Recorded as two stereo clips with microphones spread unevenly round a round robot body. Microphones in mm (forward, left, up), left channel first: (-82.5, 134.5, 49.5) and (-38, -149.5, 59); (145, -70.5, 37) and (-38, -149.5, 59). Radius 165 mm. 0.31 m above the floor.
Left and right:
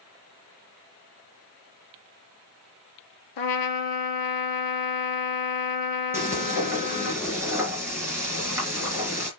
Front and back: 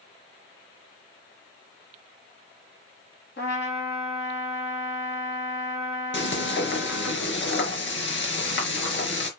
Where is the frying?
Straight ahead, 5.5 m.